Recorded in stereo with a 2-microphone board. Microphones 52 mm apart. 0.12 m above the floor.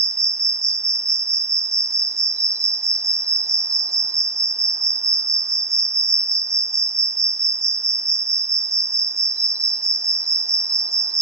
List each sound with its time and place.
0.0 s an insect: 85° right, 0.8 m